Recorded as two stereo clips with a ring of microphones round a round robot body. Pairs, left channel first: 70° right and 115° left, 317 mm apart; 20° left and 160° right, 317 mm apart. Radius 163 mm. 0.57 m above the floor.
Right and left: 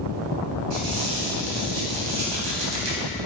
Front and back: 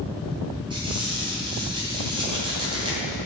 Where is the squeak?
125° left, 2.5 m.